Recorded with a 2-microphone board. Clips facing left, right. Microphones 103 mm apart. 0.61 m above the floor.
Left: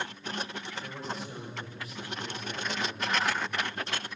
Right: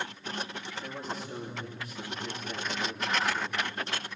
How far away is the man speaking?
About 9.5 m.